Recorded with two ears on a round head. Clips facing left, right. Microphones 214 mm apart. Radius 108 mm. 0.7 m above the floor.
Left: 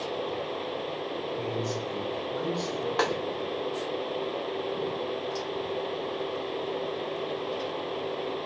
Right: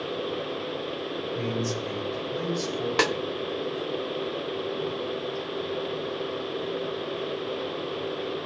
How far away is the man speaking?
About 4 m.